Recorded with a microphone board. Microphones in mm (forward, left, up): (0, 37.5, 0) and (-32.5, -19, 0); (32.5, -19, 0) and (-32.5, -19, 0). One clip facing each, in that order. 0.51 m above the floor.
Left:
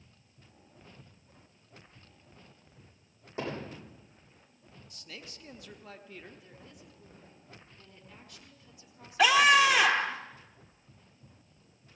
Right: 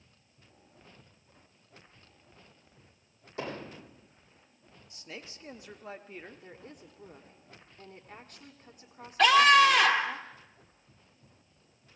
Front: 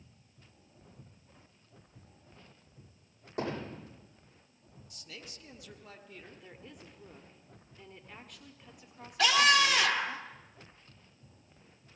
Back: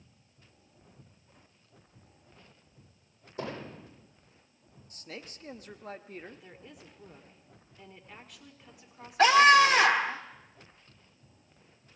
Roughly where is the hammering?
Ahead.